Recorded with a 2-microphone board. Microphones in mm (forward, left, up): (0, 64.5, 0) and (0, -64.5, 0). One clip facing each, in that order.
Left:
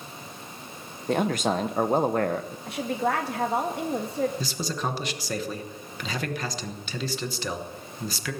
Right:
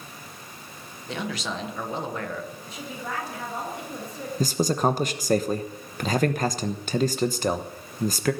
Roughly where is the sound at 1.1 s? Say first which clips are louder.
Left 7 dB; left.